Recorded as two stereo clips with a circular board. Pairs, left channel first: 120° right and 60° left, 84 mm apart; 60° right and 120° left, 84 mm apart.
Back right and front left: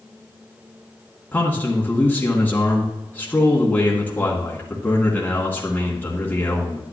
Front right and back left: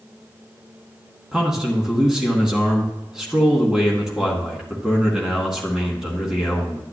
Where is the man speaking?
165° right, 1.9 m.